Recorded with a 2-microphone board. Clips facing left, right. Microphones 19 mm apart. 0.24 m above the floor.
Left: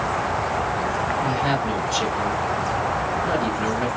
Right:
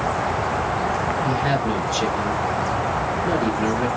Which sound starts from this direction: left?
A woman speaking, at 1.2 s.